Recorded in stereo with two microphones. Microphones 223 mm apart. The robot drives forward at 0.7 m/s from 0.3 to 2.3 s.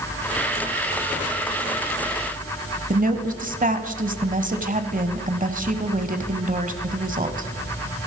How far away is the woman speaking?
About 1.1 m.